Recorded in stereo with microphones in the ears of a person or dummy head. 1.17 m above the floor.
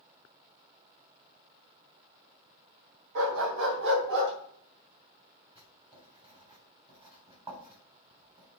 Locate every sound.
3.1 s a dog barking: 60° right (ahead or behind), 2.5 m; by 4.3 s 65° right (ahead or behind), 3.5 m
5.5 s writing: 25° right (ahead or behind), 4.5 m